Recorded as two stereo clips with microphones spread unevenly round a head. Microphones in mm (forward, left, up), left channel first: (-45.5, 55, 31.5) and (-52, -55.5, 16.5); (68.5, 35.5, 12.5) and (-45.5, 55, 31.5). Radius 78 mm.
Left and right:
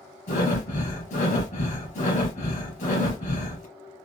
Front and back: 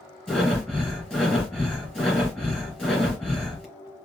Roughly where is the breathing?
Left.